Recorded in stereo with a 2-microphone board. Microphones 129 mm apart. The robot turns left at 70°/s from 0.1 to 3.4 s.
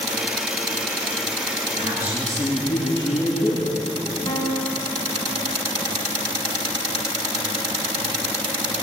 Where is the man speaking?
135° right, 7 m; by 3.7 s 110° left, 7 m.